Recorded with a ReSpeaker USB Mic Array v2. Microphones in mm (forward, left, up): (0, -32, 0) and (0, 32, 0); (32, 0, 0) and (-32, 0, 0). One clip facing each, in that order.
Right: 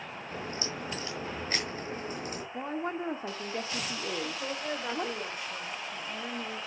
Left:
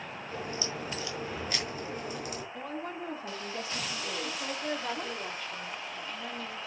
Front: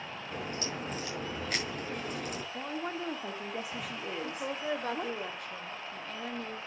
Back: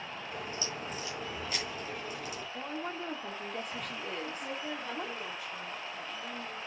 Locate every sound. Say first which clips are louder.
0.3 s a crack: left 1 dB, front 3 dB; 35° right, 5 m
2.5 s a woman speaking: right 8 dB, front 1 dB; 80° right, 1.3 m
4.2 s a woman speaking: even, front 3 dB; 20° right, 2.5 m